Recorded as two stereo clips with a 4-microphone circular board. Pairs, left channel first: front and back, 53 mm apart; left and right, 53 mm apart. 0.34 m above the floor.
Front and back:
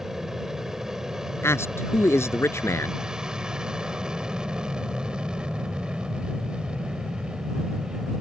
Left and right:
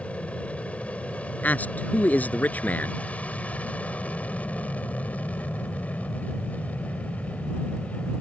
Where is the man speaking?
30° left.